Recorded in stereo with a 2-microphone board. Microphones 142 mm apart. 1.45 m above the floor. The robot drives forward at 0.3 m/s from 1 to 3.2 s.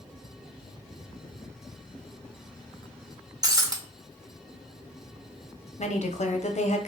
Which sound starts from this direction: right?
Breaking glass, at 3.4 s.